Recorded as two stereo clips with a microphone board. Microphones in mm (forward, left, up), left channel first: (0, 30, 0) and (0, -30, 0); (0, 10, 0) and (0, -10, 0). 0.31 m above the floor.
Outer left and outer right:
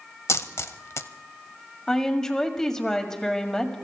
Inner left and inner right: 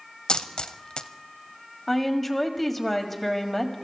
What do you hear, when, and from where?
0.3 s a dropped coin: 55° left (ahead or behind), 0.7 m
1.9 s a woman speaking: 10° left (ahead or behind), 1.7 m